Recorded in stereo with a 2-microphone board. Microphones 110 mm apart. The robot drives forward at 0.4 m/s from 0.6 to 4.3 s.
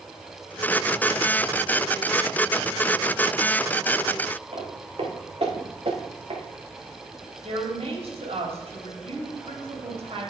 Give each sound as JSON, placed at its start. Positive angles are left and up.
{"t": 4.5, "sound": "footsteps", "side_deg": -65, "distance_m": 4.5}
{"t": 7.4, "sound": "a woman speaking", "side_deg": -70, "distance_m": 3.5}